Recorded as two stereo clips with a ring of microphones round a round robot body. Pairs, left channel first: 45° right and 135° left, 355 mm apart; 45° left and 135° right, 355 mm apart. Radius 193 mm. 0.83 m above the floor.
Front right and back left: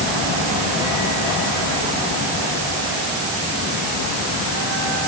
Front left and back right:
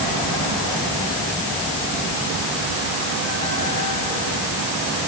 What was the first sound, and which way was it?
Only background noise.